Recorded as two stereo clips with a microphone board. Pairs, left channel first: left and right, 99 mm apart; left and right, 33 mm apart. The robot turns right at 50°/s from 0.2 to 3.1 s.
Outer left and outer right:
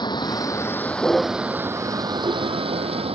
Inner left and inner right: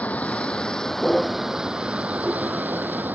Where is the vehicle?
130° left; by 3.1 s 85° right.